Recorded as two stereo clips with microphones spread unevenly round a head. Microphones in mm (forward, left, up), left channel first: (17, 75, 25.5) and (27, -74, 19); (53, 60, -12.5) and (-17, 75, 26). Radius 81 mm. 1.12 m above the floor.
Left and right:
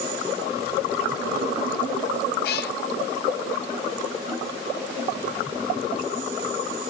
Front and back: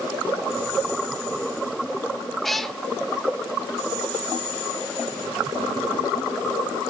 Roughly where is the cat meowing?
Left.